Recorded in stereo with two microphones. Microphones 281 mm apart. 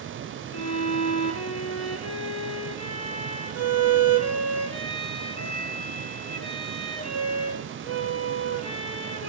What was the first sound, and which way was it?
A violin, 55° left (ahead or behind).